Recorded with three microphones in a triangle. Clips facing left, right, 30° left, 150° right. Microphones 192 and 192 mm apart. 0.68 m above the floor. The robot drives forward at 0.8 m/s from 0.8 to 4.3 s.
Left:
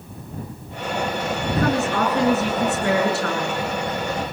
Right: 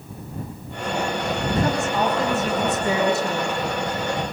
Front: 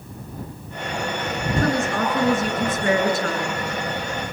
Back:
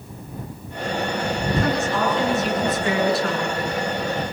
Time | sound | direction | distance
1.6 | a woman speaking | 65° left | 9.5 m